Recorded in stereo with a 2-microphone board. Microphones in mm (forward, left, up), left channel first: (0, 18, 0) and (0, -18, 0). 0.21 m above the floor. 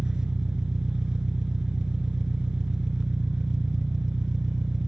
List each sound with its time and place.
0.0 s an engine running: 20° right (ahead or behind), 1.1 m